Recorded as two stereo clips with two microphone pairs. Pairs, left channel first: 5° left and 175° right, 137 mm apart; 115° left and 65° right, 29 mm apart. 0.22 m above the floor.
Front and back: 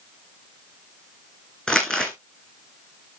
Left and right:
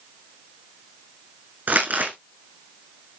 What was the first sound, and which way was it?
Crumpling, 80° right.